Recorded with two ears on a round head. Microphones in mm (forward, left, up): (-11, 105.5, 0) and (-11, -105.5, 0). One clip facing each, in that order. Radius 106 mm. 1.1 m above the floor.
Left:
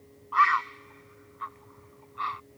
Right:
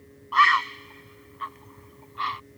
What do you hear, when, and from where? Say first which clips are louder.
0.3 s a bird: right 3 dB; 50° right (ahead or behind)